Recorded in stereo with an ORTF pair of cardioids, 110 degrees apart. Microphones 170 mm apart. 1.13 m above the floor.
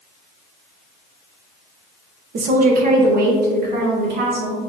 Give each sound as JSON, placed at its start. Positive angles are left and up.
{"t": 2.3, "sound": "a woman speaking", "azimuth_deg": -50, "distance_m": 0.9}